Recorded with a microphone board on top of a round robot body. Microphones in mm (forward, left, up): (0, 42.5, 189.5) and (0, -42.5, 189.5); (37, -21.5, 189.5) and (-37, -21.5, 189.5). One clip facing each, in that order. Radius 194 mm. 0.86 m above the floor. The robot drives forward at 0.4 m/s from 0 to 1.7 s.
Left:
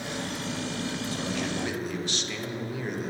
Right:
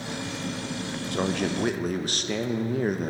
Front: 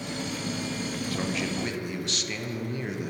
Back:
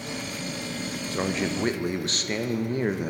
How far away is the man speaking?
About 0.8 m.